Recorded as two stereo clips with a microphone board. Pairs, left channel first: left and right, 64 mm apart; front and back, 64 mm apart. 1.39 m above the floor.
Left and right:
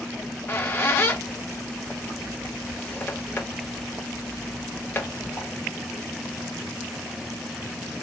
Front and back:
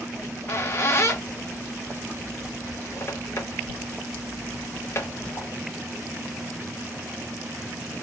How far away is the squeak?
About 0.7 m.